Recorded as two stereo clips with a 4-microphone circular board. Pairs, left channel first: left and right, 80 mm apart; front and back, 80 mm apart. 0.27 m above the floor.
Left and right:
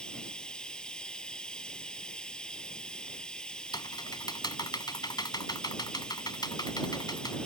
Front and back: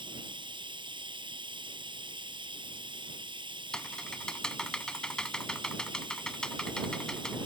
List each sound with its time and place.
0.0 s running water: 170° left
3.7 s typing on a keyboard: 80° left